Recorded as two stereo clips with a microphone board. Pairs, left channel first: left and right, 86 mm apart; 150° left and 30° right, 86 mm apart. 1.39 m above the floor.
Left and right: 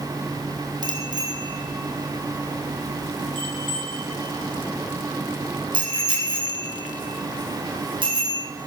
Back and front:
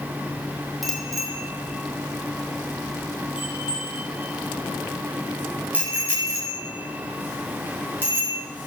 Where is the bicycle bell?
115° right, 3.5 m; by 8.4 s 95° right, 7.5 m.